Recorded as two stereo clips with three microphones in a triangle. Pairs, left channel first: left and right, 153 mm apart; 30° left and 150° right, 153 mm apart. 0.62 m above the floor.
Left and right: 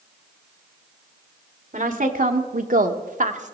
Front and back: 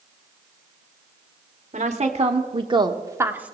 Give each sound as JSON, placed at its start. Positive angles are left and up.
{"t": 1.7, "sound": "a woman speaking", "azimuth_deg": -115, "distance_m": 1.6}